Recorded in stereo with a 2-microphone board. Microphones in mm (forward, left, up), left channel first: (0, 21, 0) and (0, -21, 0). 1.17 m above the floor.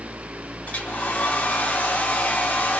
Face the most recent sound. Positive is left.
turn(degrees=35)  # may be behind; listen again after turning